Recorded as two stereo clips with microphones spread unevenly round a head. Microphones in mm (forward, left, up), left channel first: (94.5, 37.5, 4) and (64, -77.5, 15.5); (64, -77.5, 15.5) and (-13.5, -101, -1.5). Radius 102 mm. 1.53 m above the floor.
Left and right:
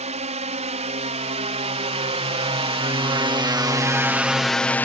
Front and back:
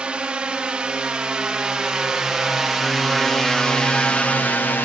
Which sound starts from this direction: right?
A drone, at 0.0 s.